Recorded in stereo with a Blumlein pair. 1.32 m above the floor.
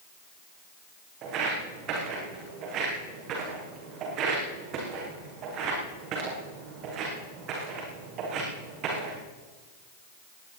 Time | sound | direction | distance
1.2 | footsteps | 35° right | 5 m